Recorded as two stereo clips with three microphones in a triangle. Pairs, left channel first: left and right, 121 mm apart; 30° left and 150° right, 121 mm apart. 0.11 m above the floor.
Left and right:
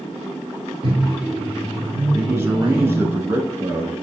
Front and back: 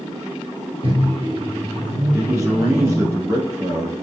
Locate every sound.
0.8 s a microwave: 130° right, 1.7 m
2.1 s a man speaking: 125° right, 1.2 m